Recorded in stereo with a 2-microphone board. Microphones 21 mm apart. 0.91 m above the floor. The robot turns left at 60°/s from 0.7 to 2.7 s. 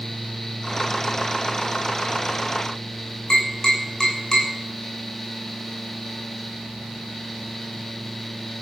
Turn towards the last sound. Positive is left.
turn(degrees=40)  # may be behind; listen again after turning